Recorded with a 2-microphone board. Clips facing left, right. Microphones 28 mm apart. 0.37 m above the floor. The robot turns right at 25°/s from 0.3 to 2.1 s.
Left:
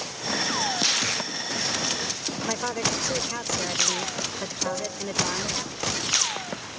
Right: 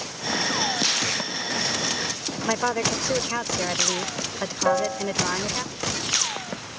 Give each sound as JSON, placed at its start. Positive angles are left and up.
{"t": 2.5, "sound": "a woman speaking", "side_deg": -25}
{"t": 4.7, "sound": "a piano", "side_deg": -45}